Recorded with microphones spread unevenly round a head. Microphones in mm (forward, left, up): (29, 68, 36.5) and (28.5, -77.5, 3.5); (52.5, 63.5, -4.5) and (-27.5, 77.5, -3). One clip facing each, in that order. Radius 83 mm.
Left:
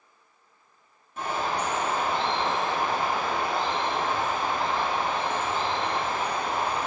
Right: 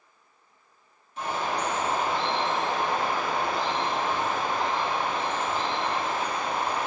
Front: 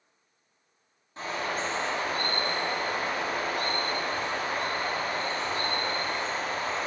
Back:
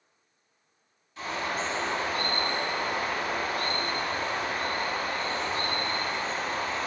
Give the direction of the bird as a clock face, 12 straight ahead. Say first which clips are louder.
Even, even; 11 o'clock.